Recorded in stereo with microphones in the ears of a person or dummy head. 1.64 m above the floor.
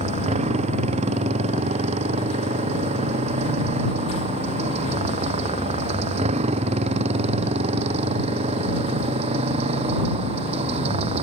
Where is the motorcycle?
35° right (ahead or behind); by 11.2 s 30° right (ahead or behind).